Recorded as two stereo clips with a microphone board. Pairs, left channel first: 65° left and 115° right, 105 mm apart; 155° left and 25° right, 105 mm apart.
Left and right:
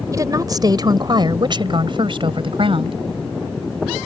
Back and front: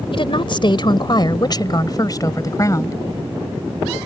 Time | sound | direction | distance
0.1 | a woman speaking | 170° right | ?